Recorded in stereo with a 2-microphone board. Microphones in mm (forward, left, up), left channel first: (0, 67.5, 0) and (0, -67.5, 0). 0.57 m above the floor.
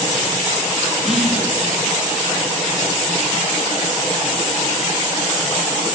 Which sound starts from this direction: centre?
Whispering, at 1.0 s.